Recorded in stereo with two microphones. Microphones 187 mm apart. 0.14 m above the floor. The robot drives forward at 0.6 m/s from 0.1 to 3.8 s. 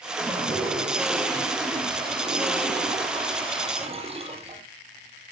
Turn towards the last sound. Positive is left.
turn(degrees=-30)  # may be behind; listen again after turning